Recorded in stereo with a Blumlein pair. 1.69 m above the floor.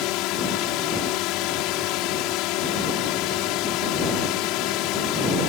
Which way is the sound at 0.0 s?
40° left.